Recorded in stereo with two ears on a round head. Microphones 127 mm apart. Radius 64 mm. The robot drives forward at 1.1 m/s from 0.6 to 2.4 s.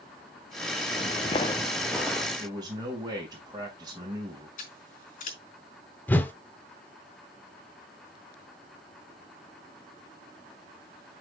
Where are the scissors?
60° left (ahead or behind), 4 m.